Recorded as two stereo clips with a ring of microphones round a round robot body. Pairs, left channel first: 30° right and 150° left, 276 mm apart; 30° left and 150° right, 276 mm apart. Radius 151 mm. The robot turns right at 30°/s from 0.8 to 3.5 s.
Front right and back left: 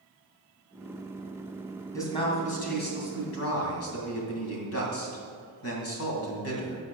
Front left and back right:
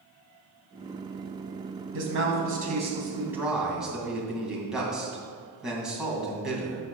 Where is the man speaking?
110° right, 2.5 m; by 6.8 s 65° right, 2.5 m.